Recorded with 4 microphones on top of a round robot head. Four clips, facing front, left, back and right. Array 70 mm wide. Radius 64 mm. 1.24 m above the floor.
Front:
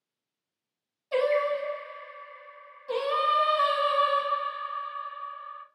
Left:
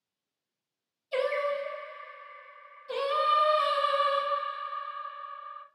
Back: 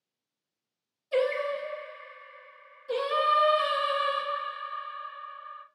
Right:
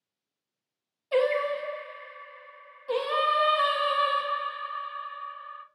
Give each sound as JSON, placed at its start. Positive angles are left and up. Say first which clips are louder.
{"t": 1.1, "sound": "singing", "louder": "right 4 dB, front 2 dB", "azimuth_deg": -60, "distance_m": 1.2}